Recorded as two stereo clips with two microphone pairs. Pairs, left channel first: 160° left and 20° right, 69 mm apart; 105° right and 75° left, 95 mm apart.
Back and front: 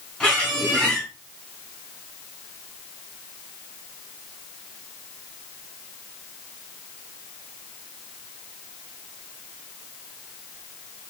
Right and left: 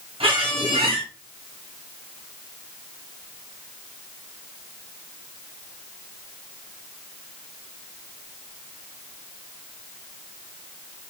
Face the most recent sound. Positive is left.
turn(degrees=90)